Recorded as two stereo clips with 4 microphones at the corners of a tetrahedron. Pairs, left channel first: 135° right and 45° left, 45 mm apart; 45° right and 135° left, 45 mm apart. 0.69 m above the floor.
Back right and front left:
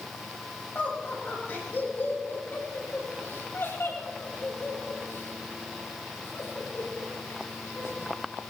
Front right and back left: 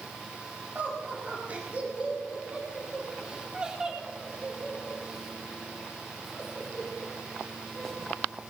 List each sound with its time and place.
0.8 s laughter: 175° right, 5 m; by 8.1 s 130° right, 5.5 m